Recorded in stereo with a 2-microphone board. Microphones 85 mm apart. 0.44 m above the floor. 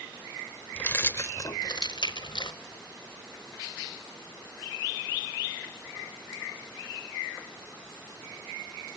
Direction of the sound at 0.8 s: 15° left (ahead or behind).